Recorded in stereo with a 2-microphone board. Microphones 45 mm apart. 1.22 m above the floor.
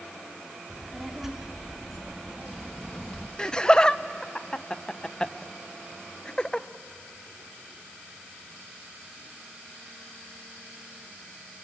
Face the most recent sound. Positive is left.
turn(degrees=20)  # may be behind; listen again after turning